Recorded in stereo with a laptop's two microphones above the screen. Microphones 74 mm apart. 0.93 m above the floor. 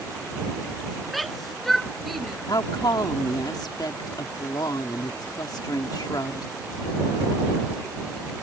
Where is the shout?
Centre (ahead or behind).